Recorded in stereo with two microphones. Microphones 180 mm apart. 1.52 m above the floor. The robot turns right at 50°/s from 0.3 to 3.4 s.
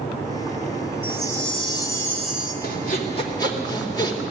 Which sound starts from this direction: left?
Sawing, at 2.6 s.